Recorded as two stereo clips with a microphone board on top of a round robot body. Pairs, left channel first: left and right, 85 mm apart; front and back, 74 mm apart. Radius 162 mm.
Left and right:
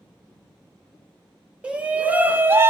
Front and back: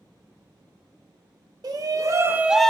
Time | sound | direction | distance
1.6 | a shout | 165° right | 1.1 m